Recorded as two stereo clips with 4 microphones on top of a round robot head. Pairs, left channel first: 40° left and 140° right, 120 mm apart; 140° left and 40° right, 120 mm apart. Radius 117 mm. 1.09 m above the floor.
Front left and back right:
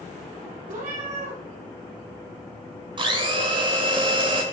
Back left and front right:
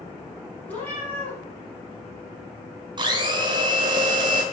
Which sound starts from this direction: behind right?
A cat meowing, at 0.7 s.